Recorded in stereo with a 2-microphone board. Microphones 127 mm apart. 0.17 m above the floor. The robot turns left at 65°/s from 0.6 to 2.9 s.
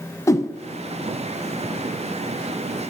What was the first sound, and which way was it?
A whoosh, 25° left (ahead or behind).